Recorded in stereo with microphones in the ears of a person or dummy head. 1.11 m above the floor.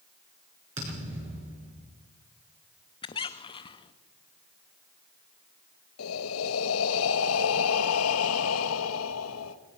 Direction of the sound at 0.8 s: 30° right (ahead or behind).